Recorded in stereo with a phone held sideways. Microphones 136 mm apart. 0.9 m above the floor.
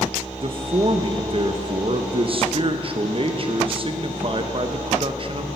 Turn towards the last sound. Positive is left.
turn(degrees=-40)  # may be behind; listen again after turning